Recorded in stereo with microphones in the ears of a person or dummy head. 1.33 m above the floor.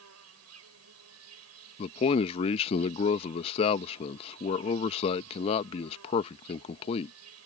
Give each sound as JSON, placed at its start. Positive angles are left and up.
{"t": 0.0, "sound": "an insect", "side_deg": -85}
{"t": 1.8, "sound": "a man speaking", "side_deg": 35}